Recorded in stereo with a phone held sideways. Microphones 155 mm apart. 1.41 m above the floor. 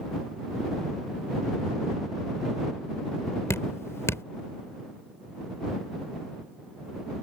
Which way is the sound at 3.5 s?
15° left (ahead or behind).